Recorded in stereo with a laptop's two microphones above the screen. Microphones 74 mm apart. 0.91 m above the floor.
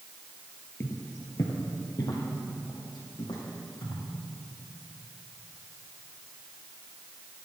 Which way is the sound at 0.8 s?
35° left (ahead or behind).